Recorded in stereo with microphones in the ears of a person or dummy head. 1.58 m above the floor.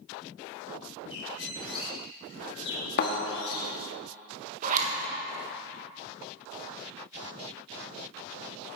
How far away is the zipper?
About 1.3 m.